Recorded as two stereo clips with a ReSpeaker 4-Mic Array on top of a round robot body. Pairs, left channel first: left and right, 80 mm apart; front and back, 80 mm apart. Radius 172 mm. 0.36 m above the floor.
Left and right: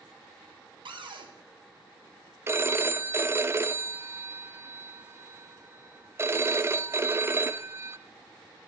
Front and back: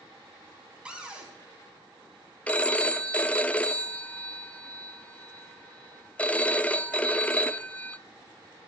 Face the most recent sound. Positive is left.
turn(degrees=-60)